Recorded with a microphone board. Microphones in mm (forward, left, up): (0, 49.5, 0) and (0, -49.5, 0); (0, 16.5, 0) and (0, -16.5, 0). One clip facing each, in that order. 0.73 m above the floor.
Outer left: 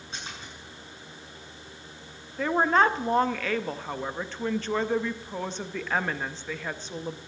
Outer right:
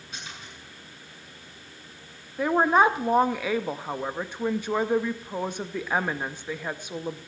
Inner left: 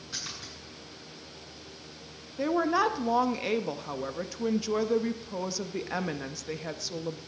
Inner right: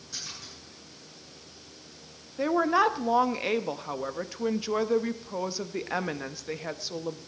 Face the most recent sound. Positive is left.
turn(degrees=-15)  # may be behind; listen again after turning